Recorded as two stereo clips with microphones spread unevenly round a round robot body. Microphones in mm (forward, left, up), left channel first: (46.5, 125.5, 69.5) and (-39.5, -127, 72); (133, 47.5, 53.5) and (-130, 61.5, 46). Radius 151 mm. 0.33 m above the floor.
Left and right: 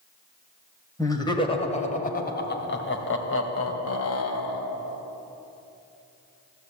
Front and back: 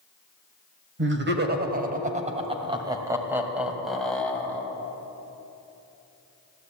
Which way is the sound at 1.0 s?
145° left.